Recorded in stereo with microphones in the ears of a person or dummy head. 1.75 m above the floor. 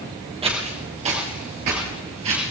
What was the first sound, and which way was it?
Footsteps, 25° right (ahead or behind).